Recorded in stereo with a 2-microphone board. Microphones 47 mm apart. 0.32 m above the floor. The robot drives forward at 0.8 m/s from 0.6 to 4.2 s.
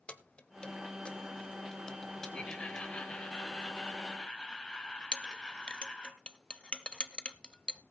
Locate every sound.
0.1 s keys jangling: 20° left (ahead or behind), 0.9 m; by 3.0 s 10° left (ahead or behind), 2 m
2.3 s laughter: 25° left (ahead or behind), 1.7 m; by 6.1 s 15° left (ahead or behind), 2.5 m
5.1 s a clink: 20° left (ahead or behind), 0.6 m